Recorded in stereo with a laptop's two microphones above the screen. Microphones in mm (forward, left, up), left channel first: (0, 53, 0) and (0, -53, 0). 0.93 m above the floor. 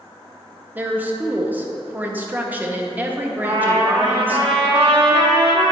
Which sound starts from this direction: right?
A trumpet, at 3.4 s.